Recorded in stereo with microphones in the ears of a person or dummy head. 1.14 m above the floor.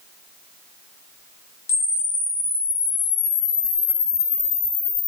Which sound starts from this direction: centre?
A camera shutter, at 1.7 s.